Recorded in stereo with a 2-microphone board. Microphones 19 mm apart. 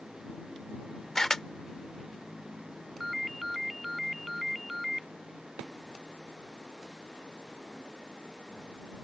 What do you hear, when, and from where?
1.1 s a camera shutter: 25° left (ahead or behind)
3.0 s a ringtone: 10° right (ahead or behind)